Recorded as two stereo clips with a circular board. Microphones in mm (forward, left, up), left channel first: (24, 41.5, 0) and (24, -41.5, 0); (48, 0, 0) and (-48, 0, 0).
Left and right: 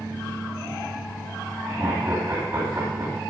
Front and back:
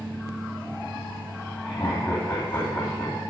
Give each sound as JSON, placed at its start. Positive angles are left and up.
{"t": 1.6, "sound": "laughter", "azimuth_deg": -25, "distance_m": 2.5}